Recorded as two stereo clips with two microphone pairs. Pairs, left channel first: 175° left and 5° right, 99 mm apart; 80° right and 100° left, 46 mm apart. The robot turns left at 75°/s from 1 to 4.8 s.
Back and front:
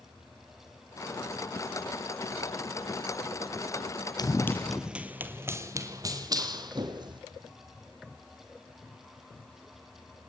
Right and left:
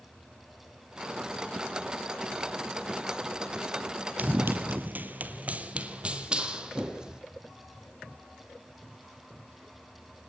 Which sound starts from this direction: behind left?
Running footsteps, at 4.2 s.